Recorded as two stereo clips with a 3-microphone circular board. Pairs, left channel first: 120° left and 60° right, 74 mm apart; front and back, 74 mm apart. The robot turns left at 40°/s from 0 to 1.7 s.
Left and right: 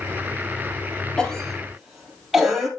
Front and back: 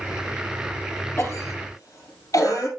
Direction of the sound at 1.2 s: 45° left.